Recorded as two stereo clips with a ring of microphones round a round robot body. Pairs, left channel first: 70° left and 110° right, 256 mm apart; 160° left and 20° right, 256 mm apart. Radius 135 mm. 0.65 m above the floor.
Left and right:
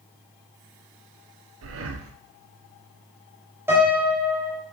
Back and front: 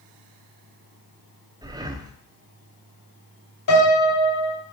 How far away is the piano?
About 3 m.